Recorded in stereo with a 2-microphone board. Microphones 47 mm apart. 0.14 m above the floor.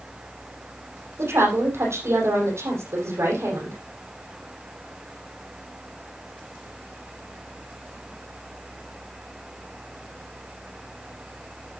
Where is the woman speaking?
80° right, 7.5 m.